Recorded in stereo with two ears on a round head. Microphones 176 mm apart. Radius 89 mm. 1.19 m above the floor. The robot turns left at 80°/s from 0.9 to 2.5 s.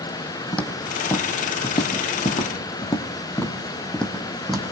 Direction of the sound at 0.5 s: 10° left (ahead or behind).